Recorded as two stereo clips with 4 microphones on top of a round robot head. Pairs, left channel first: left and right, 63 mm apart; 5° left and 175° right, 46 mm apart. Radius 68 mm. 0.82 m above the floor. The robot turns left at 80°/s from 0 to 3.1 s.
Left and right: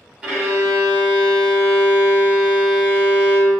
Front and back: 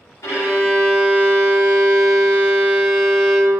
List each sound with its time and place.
0.2 s a violin: 15° right, 1.2 m; by 3.6 s 115° left, 1.2 m